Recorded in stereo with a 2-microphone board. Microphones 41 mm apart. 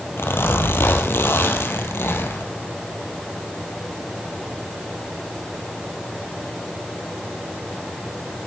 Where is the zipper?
70° left (ahead or behind), 1.7 m.